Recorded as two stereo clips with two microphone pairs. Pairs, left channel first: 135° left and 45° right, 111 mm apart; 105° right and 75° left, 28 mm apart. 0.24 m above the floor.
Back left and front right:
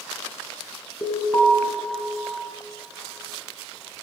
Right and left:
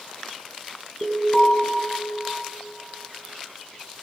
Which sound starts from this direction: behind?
An alarm, at 1.0 s.